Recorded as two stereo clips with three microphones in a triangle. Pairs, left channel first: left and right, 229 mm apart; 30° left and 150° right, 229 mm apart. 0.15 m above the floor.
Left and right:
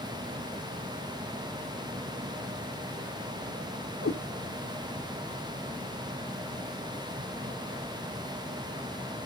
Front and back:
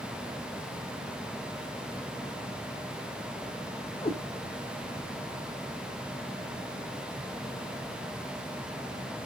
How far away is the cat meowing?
About 1.9 m.